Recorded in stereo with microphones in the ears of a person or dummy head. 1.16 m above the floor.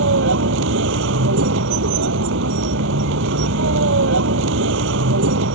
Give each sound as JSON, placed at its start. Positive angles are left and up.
{"t": 0.0, "sound": "a vehicle", "side_deg": -70}